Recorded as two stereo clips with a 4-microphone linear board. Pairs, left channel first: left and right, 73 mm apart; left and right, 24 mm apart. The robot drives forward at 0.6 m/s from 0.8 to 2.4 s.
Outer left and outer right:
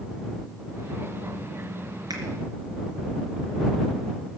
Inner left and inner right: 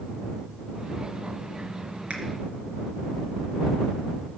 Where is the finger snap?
70° right (ahead or behind), 3.5 m.